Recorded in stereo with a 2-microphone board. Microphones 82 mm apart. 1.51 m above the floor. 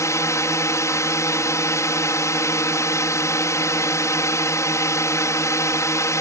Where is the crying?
No crying in this recording.